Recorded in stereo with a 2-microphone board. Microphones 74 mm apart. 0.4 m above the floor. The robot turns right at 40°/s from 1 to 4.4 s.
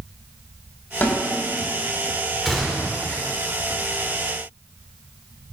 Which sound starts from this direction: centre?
A gunshot, at 2.5 s.